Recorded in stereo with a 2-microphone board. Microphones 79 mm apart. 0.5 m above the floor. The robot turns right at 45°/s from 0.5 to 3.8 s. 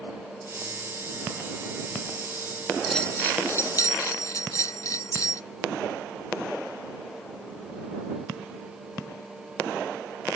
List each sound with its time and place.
2.9 s a bell: 5° left; by 5.4 s 45° left